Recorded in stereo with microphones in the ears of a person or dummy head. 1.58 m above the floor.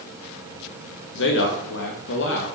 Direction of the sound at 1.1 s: 65° left (ahead or behind).